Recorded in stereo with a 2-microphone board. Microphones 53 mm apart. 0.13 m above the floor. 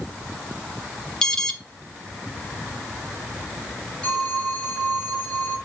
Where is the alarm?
15° left (ahead or behind), 1.3 m.